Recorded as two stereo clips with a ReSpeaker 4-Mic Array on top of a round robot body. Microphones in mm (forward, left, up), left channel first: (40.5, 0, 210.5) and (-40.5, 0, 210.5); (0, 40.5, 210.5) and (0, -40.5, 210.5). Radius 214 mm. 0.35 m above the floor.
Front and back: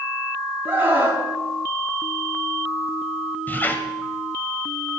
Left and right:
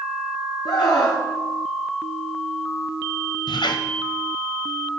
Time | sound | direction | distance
0.7 | a scream | 115° left | 5.5 m
3.5 | a squeak | 65° left | 1.6 m